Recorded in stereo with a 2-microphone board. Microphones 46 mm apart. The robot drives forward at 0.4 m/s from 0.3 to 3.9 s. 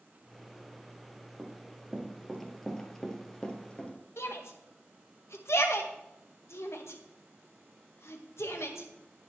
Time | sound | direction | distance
1.4 | running footsteps | 20° right (ahead or behind) | 2.5 m
4.2 | a shout | 70° left (ahead or behind) | 1.8 m